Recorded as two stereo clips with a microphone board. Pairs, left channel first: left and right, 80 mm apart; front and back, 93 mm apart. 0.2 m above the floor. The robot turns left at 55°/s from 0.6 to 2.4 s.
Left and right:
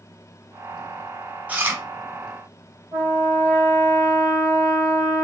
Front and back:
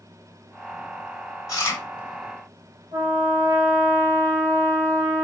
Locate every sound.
1.5 s chewing: 30° right, 1.2 m; by 1.8 s 45° right, 1.2 m
2.9 s a trumpet: 165° right, 3 m